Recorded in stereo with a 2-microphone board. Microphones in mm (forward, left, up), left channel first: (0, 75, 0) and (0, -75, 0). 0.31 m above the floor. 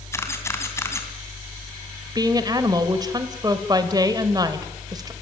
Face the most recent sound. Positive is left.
turn(degrees=-25)  # may be behind; listen again after turning